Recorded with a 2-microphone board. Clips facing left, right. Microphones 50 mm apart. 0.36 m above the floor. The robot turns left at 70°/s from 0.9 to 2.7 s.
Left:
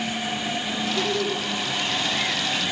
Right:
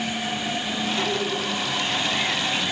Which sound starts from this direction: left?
Laughter, at 0.9 s.